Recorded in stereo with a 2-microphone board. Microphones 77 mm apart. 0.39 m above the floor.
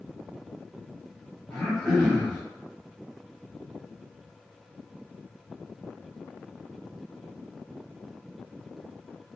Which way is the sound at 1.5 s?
5° left (ahead or behind).